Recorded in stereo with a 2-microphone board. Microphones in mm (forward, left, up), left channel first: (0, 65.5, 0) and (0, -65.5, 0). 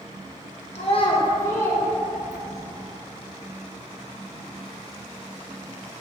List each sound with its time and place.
0.8 s a child speaking: 55° left (ahead or behind), 0.7 m; by 2.7 s 5° right (ahead or behind), 1.7 m